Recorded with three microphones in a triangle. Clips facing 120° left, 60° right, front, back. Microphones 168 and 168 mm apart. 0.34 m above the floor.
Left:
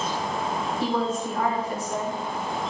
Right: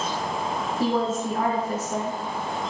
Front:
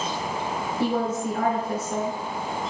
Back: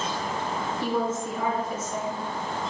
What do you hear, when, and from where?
0.8 s a woman speaking: 15° right, 5.5 m